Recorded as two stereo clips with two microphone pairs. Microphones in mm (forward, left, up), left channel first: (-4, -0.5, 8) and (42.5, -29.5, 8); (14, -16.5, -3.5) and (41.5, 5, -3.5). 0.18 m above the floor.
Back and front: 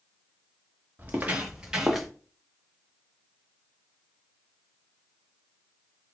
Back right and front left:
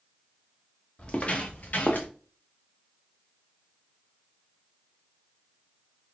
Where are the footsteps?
90° right, 1.4 m; by 2.1 s 120° right, 1.2 m.